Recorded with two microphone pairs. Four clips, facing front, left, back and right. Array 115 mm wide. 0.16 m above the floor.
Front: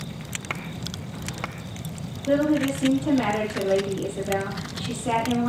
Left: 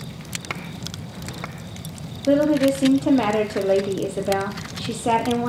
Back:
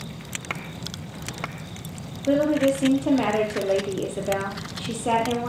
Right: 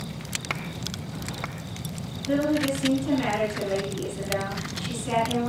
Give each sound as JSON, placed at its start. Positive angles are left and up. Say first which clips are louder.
{"t": 2.3, "sound": "a woman speaking", "louder": "left 7 dB, back 1 dB", "azimuth_deg": 110, "distance_m": 4.5}